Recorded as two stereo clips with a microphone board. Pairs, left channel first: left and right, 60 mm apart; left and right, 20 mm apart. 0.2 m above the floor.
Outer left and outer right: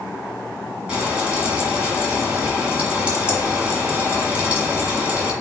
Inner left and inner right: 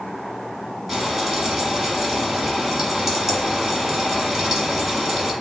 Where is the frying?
20° right (ahead or behind), 1.5 m.